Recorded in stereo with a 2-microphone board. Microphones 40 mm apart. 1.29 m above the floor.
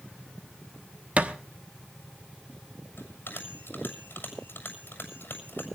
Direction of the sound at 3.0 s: 80° left.